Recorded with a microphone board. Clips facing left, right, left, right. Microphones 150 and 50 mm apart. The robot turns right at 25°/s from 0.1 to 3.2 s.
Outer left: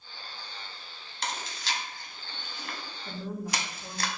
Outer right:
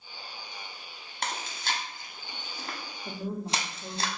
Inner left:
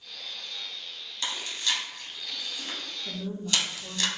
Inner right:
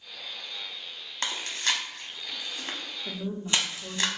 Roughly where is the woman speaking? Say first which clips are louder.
Outer right 2 dB, inner right 2 dB; right.